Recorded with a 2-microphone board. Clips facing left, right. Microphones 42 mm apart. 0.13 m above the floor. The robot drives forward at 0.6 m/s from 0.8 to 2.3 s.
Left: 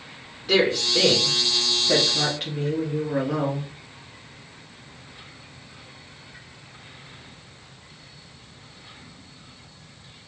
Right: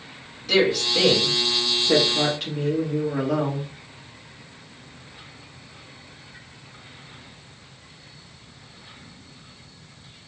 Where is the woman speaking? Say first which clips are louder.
Even; 20° left (ahead or behind), 1.4 m; by 3.7 s 15° left (ahead or behind), 1.9 m.